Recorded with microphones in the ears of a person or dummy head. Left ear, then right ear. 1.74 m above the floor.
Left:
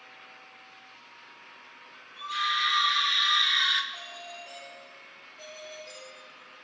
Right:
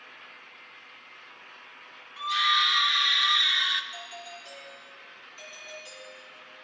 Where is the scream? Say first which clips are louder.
Right 4 dB; 30° right (ahead or behind), 1.5 m; by 3.8 s 5° left (ahead or behind), 0.7 m.